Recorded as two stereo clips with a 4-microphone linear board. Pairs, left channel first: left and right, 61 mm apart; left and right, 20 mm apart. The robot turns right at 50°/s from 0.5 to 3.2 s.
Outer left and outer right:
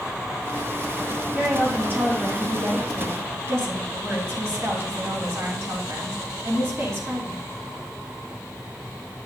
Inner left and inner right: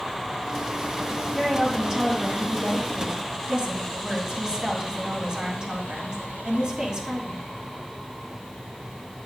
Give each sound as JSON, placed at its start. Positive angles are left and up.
{"t": 1.3, "sound": "a woman speaking", "azimuth_deg": -165, "distance_m": 2.5}